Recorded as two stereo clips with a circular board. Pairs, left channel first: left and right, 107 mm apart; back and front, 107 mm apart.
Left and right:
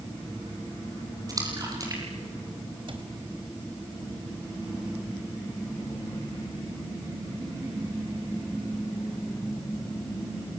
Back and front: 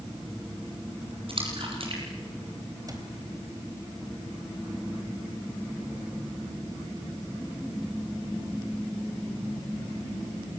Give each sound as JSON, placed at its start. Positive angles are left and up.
{"t": 1.3, "sound": "a splash", "azimuth_deg": -35, "distance_m": 7.0}
{"t": 2.9, "sound": "a cupboard door", "azimuth_deg": -55, "distance_m": 3.5}